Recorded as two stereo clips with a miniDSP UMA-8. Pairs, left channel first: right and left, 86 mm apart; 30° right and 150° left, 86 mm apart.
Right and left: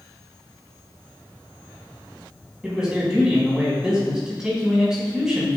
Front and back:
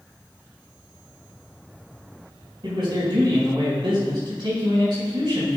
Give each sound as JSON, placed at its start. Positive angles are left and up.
{"t": 2.6, "sound": "a man speaking", "azimuth_deg": 170, "distance_m": 4.0}